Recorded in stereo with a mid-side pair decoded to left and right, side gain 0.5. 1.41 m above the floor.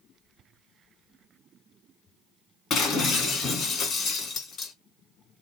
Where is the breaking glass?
60° left, 3 m.